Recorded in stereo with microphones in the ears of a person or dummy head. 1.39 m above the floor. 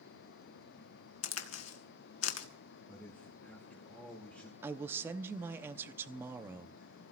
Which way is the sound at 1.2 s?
75° left (ahead or behind).